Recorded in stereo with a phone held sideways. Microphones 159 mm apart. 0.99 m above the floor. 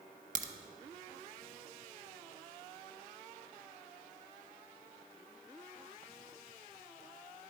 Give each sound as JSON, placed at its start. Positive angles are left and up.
{"t": 0.3, "sound": "a crack", "side_deg": -55, "distance_m": 0.5}